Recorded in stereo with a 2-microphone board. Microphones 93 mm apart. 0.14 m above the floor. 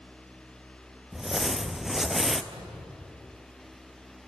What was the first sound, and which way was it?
Crumpling, 5° right (ahead or behind).